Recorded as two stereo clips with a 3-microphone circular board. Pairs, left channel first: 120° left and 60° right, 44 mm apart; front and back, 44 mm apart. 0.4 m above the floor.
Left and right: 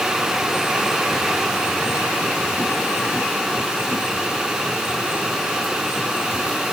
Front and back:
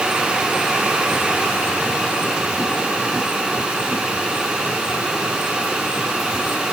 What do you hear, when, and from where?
Only background noise.